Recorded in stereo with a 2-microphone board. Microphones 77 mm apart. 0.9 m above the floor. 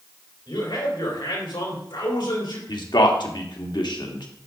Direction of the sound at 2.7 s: 75° left (ahead or behind).